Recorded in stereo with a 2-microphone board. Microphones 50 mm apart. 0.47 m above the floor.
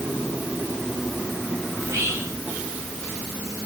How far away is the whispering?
About 2.5 m.